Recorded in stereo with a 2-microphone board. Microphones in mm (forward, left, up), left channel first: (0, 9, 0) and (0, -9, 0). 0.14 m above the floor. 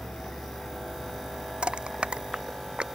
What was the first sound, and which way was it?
A vehicle, 85° left.